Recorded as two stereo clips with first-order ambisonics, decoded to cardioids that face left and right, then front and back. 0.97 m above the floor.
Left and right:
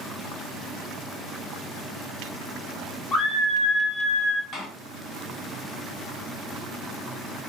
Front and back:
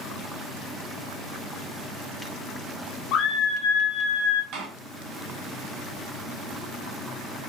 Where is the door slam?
150° left, 1.2 m.